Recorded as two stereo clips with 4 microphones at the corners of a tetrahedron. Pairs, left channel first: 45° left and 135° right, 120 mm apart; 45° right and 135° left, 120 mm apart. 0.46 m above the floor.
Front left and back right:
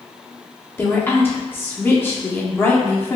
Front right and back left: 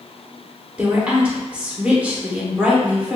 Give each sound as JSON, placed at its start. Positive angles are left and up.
{"t": 0.8, "sound": "a woman speaking", "azimuth_deg": 75, "distance_m": 0.7}